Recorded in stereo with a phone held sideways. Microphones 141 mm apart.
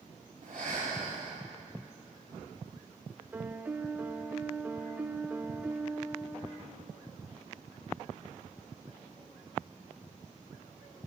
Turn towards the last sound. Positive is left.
turn(degrees=-10)  # may be behind; listen again after turning